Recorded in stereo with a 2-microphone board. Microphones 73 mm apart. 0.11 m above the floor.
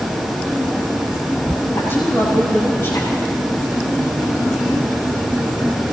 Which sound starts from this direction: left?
A woman speaking, at 1.7 s.